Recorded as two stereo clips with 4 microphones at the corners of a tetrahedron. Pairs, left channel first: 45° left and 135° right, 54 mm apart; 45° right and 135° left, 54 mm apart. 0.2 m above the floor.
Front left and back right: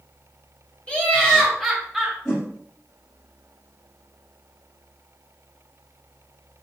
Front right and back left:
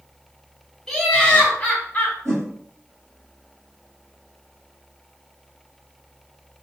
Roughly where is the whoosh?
Left.